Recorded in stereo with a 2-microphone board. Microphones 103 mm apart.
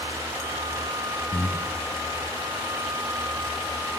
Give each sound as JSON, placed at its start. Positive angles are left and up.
{"t": 1.3, "sound": "breathing", "side_deg": 20, "distance_m": 0.8}